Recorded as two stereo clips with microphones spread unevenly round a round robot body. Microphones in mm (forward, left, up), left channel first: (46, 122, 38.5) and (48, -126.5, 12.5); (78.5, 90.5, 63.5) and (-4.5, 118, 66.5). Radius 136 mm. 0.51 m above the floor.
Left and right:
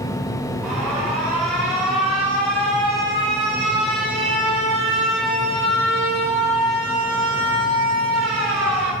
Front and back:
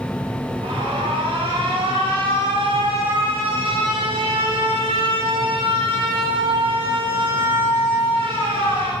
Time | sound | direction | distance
0.6 | an alarm | 175° right | 6 m